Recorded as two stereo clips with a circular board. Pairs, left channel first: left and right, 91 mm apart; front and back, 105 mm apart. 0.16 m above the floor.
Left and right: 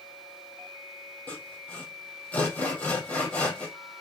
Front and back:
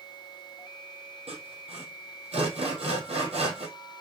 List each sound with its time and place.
1.3 s sawing: 165° left, 4 m